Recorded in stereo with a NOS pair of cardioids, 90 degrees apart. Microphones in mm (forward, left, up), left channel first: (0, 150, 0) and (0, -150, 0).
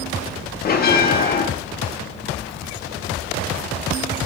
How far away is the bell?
About 0.5 m.